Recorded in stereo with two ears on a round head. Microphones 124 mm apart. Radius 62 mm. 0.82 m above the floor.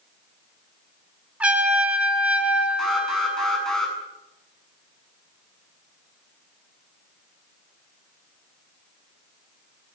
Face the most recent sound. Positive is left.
turn(degrees=5)  # may be behind; listen again after turning